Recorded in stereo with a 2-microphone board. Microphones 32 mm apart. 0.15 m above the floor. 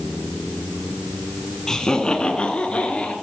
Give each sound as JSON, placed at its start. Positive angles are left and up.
{"t": 1.7, "sound": "laughter", "side_deg": 15, "distance_m": 1.0}